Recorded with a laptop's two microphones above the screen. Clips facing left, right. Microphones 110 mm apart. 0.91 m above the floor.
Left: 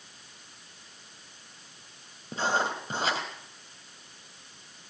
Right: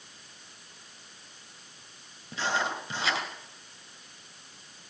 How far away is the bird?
No bird in this recording.